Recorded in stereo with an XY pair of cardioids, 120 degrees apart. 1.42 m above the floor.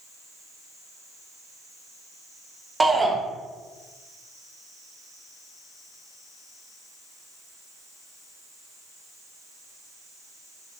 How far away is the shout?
About 0.7 m.